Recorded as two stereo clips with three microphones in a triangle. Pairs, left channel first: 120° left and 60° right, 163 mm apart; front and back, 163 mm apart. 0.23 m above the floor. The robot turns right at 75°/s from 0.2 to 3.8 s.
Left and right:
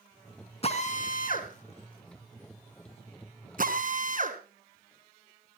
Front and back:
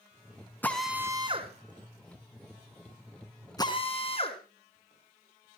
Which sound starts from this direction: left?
A drill, at 0.6 s.